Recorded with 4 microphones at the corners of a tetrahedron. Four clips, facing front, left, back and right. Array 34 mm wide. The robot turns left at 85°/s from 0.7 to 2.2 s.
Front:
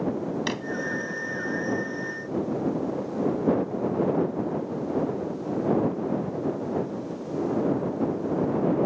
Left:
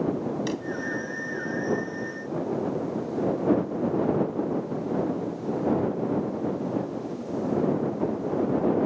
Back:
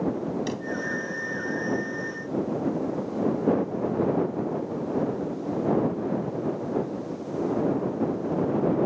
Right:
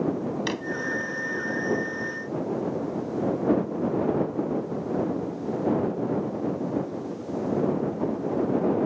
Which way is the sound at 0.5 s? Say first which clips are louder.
Right 1 dB, front 2 dB; 45° right.